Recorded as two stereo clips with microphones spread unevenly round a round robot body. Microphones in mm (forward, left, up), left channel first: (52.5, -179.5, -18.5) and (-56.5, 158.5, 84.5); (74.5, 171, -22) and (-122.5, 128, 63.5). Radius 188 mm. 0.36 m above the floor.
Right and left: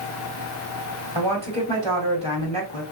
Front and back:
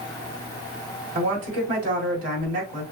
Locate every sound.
1.1 s a woman speaking: 170° right, 3 m